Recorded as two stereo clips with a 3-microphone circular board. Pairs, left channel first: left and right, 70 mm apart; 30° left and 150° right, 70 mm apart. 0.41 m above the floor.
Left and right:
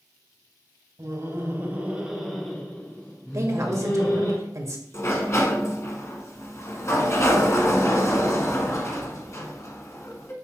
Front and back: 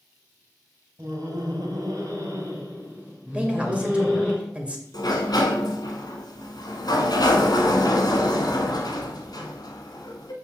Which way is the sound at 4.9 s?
45° left.